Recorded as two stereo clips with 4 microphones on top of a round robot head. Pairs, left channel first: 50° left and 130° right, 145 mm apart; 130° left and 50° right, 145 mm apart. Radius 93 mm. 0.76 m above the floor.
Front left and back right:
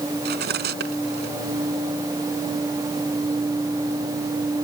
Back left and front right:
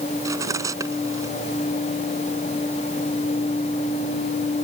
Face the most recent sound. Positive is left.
turn(degrees=-120)